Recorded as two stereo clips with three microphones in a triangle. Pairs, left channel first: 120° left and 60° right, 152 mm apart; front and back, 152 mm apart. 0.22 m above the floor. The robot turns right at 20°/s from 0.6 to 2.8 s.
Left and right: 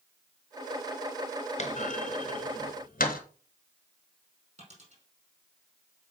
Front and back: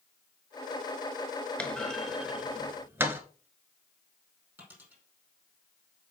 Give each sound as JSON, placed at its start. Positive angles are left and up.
{"t": 1.6, "sound": "a clunk", "azimuth_deg": 80, "distance_m": 1.2}
{"t": 4.6, "sound": "a dropped coin", "azimuth_deg": -100, "distance_m": 4.5}